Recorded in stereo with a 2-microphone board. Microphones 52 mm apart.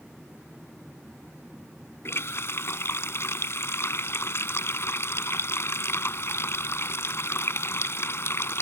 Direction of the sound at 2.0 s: 55° left (ahead or behind).